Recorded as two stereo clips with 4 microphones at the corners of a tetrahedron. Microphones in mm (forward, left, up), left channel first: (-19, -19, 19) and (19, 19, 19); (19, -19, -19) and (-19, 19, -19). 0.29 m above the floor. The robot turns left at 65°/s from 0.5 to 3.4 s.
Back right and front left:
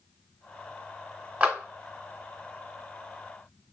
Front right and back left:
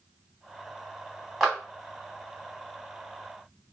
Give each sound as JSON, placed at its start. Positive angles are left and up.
{"t": 1.4, "sound": "a clap", "azimuth_deg": 40, "distance_m": 1.3}